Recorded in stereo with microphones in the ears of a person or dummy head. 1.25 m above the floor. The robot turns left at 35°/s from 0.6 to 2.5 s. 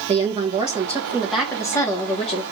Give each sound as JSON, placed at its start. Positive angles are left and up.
{"t": 0.1, "sound": "a woman speaking", "azimuth_deg": -150, "distance_m": 1.2}